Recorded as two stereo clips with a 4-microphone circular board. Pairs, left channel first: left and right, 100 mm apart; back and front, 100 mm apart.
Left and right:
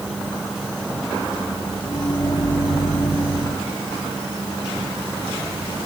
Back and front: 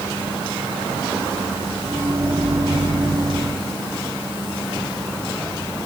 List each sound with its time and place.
1.9 s a microwave: 55° left, 3 m